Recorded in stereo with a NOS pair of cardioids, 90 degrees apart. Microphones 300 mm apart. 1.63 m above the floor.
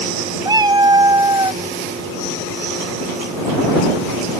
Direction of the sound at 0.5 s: 15° right.